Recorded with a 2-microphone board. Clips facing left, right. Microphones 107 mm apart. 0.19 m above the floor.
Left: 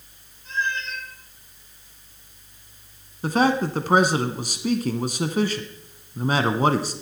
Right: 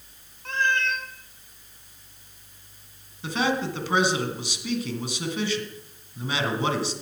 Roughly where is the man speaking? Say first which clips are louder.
Left 5 dB; left.